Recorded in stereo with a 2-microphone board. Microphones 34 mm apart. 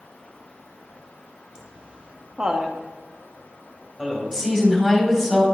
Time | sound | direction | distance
1.6 | laughter | 25° right (ahead or behind) | 0.5 m
4.3 | a woman speaking | 15° right (ahead or behind) | 2.5 m